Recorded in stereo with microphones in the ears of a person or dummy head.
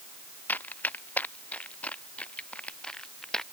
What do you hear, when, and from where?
0.5 s running footsteps: 10° left (ahead or behind); by 3.4 s centre (ahead or behind)